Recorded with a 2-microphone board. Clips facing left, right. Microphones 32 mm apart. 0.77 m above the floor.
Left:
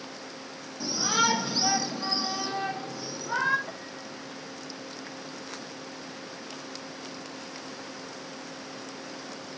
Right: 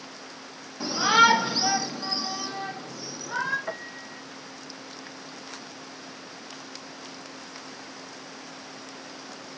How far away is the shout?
About 1.2 m.